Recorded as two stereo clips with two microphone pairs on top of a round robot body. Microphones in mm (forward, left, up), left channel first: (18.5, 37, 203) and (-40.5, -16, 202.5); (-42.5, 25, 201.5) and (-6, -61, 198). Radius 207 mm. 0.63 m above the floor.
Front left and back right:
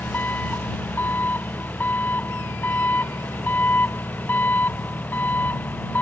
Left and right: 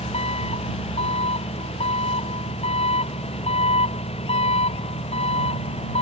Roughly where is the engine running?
Left.